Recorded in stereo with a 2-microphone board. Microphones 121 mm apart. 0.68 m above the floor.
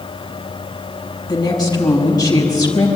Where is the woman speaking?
35° left (ahead or behind), 4.5 m.